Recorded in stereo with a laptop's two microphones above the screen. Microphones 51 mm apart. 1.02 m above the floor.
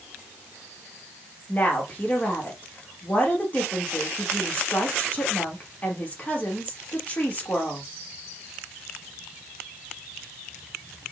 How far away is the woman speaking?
About 1.3 m.